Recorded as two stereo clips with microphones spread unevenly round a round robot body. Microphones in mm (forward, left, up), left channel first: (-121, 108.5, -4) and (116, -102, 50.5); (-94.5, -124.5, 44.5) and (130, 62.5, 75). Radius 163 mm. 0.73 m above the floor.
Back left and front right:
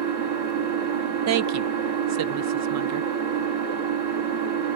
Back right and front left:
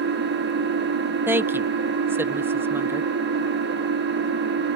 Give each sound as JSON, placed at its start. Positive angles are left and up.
{"t": 0.0, "sound": "an engine running", "azimuth_deg": -15, "distance_m": 1.5}
{"t": 1.3, "sound": "a woman speaking", "azimuth_deg": -45, "distance_m": 0.5}